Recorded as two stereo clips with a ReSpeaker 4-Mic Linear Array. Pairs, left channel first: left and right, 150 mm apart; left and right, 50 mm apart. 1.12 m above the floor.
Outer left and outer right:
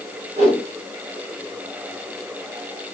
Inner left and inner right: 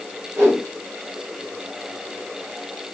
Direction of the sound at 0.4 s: 45° right (ahead or behind).